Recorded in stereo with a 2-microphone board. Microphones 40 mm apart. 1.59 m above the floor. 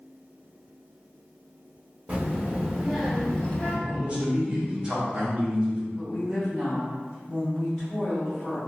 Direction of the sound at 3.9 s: 30° right (ahead or behind).